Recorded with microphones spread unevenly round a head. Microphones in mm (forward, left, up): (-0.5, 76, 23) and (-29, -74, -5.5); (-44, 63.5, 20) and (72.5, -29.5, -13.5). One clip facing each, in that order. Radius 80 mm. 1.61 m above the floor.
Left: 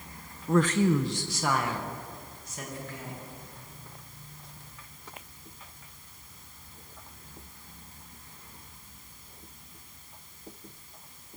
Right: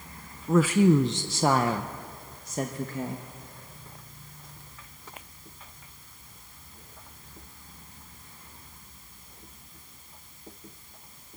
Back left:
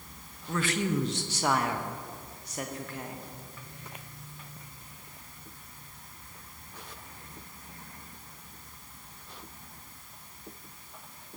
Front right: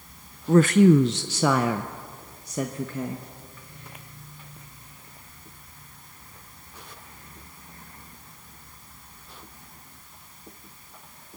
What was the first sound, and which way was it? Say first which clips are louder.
A woman speaking: right 3 dB, front right 14 dB; 5° left.